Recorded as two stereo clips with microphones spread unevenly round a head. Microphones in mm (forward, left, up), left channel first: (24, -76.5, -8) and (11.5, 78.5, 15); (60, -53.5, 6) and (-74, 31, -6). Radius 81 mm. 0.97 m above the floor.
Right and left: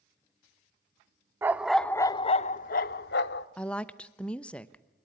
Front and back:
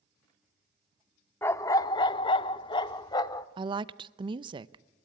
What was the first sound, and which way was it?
A dog barking, 35° left.